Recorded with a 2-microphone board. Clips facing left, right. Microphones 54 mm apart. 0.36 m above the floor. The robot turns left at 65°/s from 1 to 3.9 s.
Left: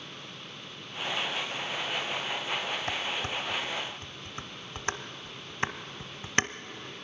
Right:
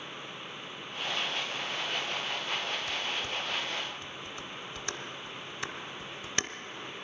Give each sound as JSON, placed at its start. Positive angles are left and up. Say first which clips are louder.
{"t": 2.9, "sound": "dishes clattering", "louder": "left 2 dB", "side_deg": 45, "distance_m": 0.8}